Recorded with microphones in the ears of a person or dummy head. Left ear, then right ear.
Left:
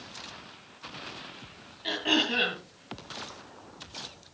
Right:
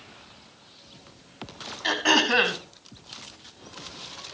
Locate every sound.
1.8 s throat clearing: 50° right (ahead or behind), 3 m